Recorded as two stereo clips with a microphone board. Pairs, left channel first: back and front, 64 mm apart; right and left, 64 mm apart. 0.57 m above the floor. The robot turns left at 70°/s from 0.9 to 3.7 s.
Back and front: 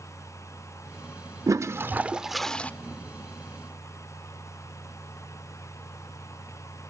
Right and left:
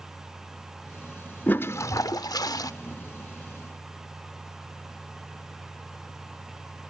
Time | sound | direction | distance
1.5 | a toilet flushing | 25° right | 0.5 m